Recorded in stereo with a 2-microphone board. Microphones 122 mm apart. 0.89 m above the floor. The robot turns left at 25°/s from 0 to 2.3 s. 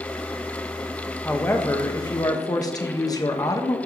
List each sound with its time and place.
1.2 s a woman speaking: 15° left (ahead or behind), 0.8 m; by 3.8 s 30° left (ahead or behind), 0.8 m